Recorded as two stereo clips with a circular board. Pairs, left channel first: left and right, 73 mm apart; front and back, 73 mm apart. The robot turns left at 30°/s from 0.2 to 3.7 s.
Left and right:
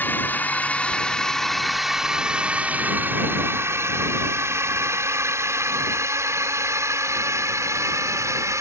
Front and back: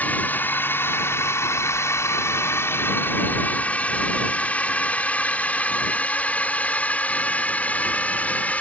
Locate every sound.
0.0 s a drone: 50° left; by 8.6 s 60° right